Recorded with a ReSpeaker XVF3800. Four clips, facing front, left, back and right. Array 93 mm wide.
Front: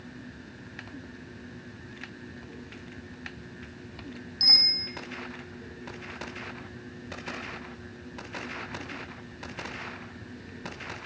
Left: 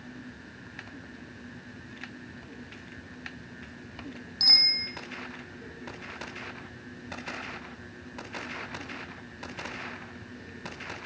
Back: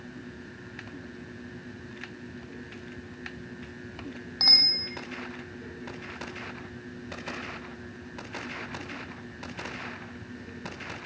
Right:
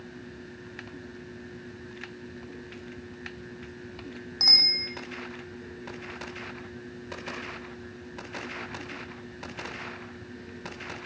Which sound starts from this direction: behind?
A bicycle bell, at 4.4 s.